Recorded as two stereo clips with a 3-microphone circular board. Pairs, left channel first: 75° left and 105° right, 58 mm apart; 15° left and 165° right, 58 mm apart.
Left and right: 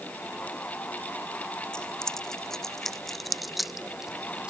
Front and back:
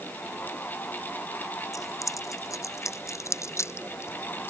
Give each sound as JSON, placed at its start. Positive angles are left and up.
{"t": 1.7, "sound": "keys jangling", "azimuth_deg": -5}